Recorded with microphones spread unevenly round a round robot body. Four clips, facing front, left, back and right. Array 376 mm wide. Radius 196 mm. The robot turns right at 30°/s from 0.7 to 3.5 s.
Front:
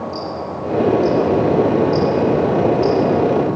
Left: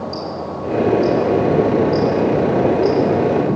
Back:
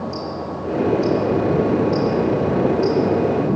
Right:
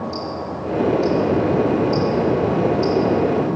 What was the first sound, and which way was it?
Ticking, 170° right.